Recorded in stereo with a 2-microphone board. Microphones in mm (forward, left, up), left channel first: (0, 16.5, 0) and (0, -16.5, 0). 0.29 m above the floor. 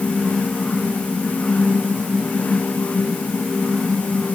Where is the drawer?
No drawer in this recording.